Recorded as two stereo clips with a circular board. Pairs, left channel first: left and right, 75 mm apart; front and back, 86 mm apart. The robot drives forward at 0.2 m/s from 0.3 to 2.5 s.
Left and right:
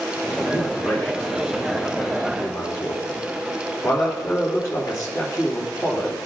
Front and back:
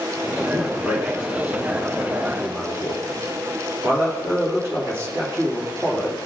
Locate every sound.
0.5 s a man speaking: 125° left, 2.5 m; by 6.2 s 135° left, 3 m